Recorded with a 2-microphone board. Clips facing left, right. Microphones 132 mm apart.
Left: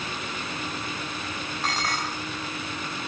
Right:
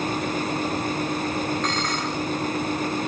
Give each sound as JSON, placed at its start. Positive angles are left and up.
{"t": 1.6, "sound": "dishes clattering", "side_deg": 5, "distance_m": 3.5}